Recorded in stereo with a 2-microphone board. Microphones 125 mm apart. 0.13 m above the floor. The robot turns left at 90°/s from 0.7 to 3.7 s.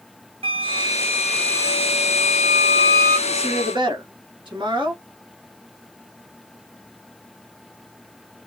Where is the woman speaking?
35° right, 1.4 m; by 5.0 s 70° right, 1.4 m.